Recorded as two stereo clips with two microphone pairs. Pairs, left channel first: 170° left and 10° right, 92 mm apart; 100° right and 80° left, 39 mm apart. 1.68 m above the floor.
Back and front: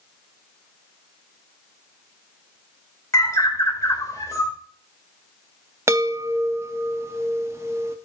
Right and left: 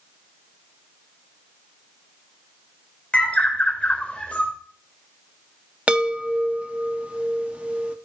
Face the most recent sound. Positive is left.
turn(degrees=40)